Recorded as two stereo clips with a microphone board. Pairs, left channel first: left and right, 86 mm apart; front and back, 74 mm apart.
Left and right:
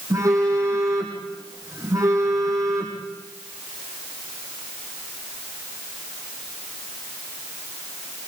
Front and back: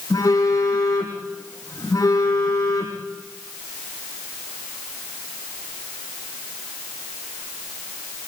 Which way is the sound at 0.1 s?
40° right.